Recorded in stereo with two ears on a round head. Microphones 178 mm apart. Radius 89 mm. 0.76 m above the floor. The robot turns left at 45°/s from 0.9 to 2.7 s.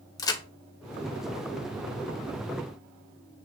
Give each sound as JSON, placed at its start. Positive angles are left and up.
{"t": 0.2, "sound": "a crack", "side_deg": 20, "distance_m": 0.6}